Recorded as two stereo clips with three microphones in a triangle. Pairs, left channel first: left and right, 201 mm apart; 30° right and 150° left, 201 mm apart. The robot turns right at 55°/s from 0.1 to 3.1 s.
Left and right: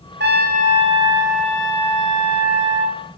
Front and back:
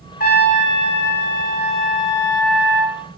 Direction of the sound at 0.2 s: 65° right.